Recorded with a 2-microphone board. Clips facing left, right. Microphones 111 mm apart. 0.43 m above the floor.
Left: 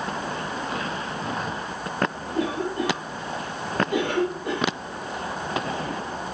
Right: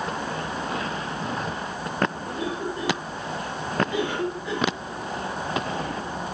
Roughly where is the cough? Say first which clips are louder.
Left 3 dB; left.